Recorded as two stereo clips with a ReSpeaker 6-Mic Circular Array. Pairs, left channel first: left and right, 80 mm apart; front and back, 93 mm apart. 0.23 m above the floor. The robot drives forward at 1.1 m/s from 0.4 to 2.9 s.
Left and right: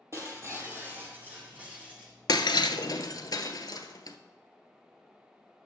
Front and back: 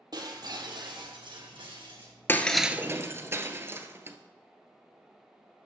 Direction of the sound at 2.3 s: 65° left.